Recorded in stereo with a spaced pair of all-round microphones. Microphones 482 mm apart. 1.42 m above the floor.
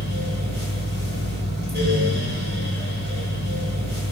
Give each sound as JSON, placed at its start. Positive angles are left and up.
{"t": 0.0, "sound": "a fan", "side_deg": -20, "distance_m": 3.0}